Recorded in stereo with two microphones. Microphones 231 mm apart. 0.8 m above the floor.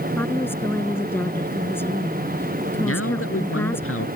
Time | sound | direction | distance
0.2 | a woman speaking | 10° left (ahead or behind) | ?
2.8 | a man speaking | 85° left | ?